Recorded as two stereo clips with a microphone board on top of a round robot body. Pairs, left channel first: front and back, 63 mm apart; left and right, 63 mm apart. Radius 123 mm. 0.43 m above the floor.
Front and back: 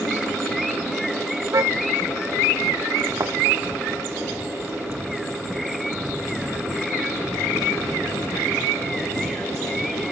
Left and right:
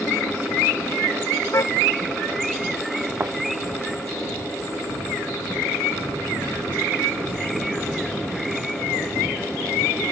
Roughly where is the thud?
Behind right.